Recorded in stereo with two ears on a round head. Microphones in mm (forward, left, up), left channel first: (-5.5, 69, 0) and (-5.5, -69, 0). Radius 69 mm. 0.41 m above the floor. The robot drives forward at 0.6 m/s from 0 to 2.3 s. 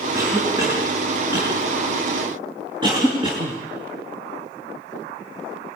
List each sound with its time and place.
0.1 s a cough: 20° right (ahead or behind), 4.5 m; by 3.6 s 30° right (ahead or behind), 3.5 m